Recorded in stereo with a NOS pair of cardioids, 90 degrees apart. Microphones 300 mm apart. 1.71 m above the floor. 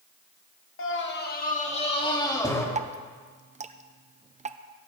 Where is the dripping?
25° right, 0.9 m.